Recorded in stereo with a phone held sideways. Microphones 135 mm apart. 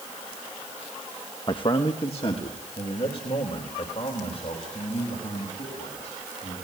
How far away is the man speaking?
About 1.0 m.